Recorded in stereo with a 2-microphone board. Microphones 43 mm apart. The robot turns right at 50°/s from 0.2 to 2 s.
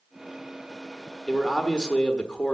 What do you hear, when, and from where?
1.3 s a man speaking: 5° left (ahead or behind), 1.1 m; by 2.6 s 20° left (ahead or behind), 1.1 m